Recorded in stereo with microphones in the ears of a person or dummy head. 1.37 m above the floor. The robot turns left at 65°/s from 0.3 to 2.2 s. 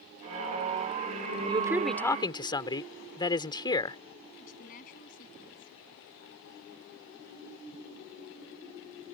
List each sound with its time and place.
1.5 s a man speaking: 155° right; by 4.0 s 155° left
4.4 s a woman speaking: 45° left (ahead or behind)